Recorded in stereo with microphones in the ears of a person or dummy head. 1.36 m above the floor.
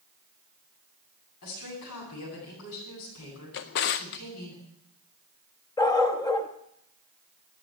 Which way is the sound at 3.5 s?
40° left (ahead or behind).